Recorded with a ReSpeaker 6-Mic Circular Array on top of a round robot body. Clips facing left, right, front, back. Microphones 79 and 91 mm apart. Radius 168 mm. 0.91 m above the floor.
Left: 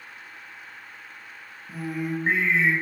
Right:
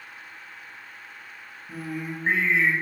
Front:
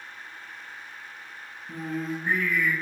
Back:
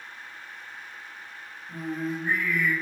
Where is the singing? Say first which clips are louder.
Left 4 dB, even; 5° left, 1.4 m.